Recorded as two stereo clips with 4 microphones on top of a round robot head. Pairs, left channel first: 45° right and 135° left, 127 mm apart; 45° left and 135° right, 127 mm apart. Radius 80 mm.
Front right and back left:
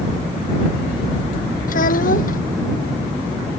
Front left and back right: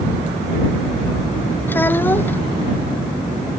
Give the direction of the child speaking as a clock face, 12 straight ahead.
1 o'clock.